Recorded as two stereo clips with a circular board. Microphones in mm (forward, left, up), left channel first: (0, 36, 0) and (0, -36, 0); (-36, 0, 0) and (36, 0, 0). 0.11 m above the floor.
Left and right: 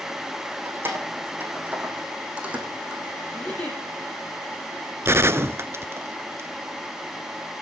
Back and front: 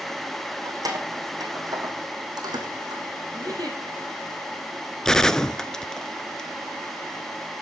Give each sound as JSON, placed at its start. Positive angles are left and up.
{"t": 0.7, "sound": "keys jangling", "azimuth_deg": -30, "distance_m": 5.0}
{"t": 3.3, "sound": "a giggle", "azimuth_deg": 20, "distance_m": 5.0}
{"t": 5.0, "sound": "a gunshot", "azimuth_deg": -105, "distance_m": 0.7}